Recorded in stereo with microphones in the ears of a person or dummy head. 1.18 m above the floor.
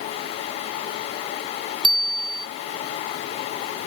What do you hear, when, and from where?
1.8 s a bicycle bell: 30° right (ahead or behind)